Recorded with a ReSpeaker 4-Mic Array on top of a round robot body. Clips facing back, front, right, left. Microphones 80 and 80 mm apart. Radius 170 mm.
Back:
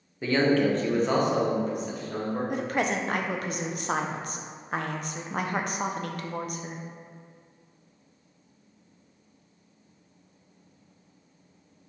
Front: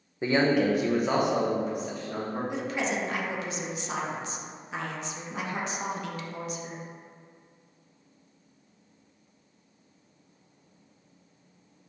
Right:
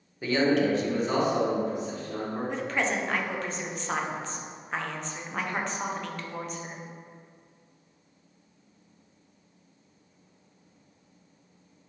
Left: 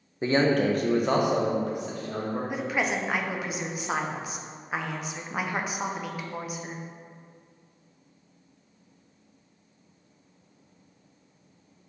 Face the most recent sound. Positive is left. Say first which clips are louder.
# back 3 dB, even
turn(degrees=170)